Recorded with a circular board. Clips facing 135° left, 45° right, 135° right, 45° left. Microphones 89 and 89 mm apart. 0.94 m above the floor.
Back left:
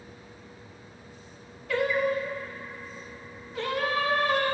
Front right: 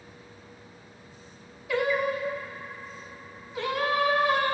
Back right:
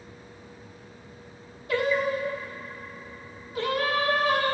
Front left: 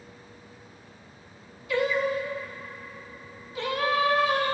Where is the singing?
125° right, 0.9 m.